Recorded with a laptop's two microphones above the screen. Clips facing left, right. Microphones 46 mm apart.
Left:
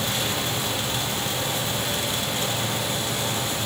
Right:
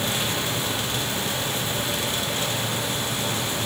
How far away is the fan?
About 3.5 m.